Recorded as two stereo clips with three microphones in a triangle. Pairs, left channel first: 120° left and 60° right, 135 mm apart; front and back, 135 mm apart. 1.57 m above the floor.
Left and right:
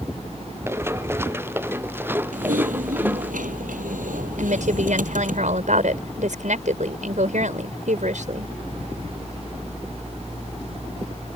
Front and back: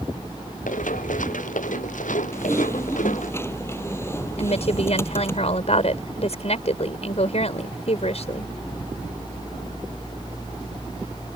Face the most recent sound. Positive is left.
turn(degrees=-35)